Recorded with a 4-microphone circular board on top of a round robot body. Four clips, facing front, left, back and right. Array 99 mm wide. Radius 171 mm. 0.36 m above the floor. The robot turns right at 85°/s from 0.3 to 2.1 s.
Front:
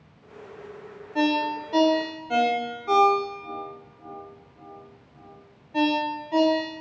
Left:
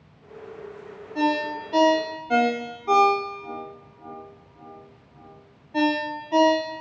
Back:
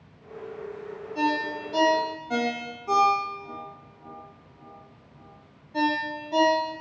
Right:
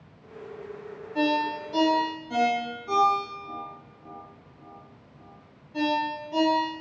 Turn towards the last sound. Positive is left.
turn(degrees=75)